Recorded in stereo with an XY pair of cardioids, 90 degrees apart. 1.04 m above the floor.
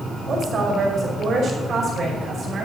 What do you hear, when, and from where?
0.3 s a woman speaking: 60° right, 5 m